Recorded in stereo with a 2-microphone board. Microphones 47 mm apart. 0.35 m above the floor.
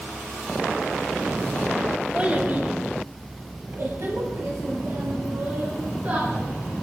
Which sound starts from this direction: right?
A child speaking, at 2.1 s.